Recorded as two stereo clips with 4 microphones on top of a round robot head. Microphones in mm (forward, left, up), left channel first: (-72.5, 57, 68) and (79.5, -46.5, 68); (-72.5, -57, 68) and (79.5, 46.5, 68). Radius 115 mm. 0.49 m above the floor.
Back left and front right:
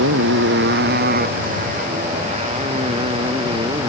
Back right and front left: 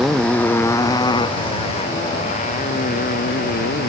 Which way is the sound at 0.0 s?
55° right.